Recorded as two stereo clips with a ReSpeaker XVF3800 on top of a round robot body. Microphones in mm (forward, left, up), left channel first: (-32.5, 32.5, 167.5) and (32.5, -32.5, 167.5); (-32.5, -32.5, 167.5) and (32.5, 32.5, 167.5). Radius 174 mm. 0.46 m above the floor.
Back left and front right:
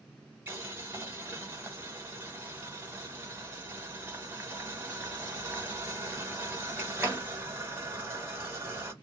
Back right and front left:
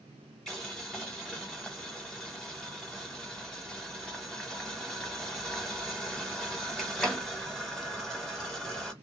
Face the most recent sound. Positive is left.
turn(degrees=-55)